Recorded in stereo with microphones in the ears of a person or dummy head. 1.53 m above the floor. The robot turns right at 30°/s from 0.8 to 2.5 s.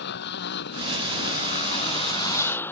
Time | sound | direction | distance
0.0 | a motorcycle | 115° left | ?